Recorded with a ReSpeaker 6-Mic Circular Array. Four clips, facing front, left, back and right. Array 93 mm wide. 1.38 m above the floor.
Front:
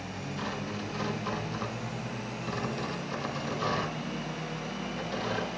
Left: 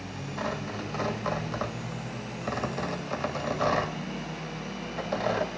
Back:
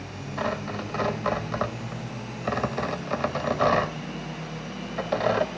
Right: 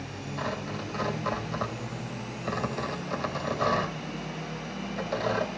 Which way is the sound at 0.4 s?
170° left.